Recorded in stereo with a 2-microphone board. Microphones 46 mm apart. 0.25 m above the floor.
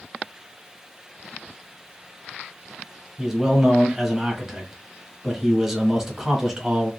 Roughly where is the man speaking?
Centre.